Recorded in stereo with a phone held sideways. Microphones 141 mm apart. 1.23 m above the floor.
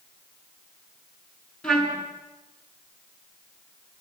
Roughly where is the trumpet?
Centre.